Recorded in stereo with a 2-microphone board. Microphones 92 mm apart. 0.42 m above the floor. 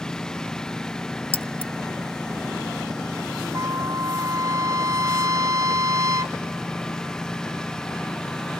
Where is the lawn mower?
5° left (ahead or behind).